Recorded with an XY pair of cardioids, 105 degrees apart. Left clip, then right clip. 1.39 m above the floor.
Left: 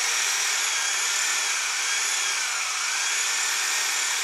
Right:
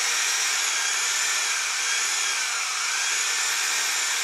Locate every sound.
0.0 s a machine running: 10° left, 4.5 m